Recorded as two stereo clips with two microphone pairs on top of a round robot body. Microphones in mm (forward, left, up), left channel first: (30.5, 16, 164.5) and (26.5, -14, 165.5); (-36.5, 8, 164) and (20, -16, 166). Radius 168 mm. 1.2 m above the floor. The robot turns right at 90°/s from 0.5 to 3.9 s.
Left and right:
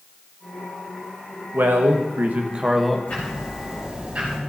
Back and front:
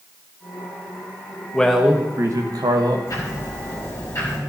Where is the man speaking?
130° right, 1.3 m; by 3.0 s straight ahead, 1.3 m.